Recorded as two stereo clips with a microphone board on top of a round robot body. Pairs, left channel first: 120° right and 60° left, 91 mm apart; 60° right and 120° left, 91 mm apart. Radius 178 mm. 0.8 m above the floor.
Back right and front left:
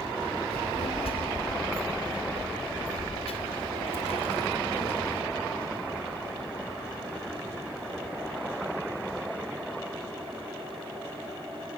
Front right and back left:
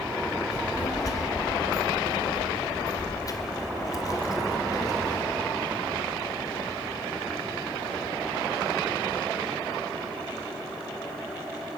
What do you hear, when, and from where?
0.5 s a child speaking: 110° right, 1.8 m